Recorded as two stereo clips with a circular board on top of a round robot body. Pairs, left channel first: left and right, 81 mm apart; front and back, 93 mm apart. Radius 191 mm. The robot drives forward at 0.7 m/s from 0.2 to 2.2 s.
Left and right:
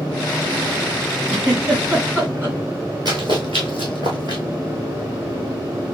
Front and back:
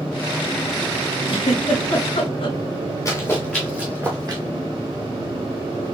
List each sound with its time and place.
1.3 s a giggle: 15° right, 2.5 m; by 2.6 s 20° right, 2 m
3.0 s running footsteps: 55° right, 0.7 m; by 4.4 s 135° right, 0.7 m